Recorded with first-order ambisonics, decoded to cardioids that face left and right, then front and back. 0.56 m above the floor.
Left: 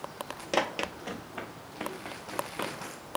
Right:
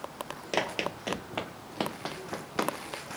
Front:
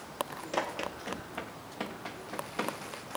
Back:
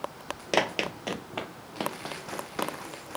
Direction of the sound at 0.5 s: 175° left.